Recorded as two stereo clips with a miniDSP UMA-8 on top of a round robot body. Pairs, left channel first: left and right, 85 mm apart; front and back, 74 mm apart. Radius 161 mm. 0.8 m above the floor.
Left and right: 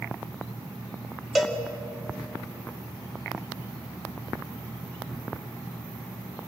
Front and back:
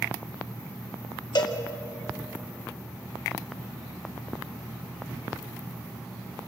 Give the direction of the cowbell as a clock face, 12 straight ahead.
12 o'clock.